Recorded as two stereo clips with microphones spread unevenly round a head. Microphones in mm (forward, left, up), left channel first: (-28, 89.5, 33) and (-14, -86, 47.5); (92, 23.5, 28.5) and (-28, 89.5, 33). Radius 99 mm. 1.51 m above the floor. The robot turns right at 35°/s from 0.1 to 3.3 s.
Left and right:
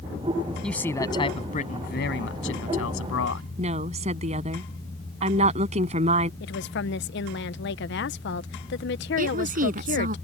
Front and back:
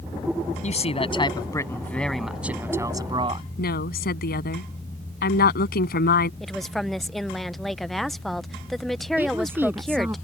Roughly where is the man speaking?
Ahead.